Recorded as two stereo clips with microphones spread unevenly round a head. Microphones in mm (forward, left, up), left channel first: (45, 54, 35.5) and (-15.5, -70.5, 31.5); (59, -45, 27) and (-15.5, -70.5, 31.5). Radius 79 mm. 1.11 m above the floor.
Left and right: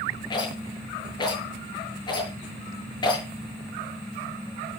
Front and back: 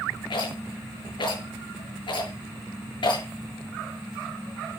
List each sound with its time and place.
0.3 s a rattle: 5° left, 7.5 m